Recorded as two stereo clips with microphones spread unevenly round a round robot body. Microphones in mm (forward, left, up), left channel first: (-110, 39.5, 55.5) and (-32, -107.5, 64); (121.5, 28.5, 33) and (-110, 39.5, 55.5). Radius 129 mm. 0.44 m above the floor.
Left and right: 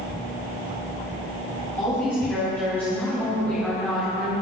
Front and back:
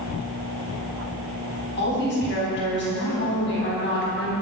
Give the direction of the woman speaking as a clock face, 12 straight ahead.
11 o'clock.